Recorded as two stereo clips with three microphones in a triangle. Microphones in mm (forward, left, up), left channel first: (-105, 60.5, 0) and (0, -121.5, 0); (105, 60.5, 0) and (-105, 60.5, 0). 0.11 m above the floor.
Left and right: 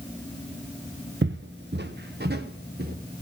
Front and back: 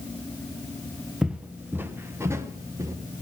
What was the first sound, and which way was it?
Footsteps, 95° right.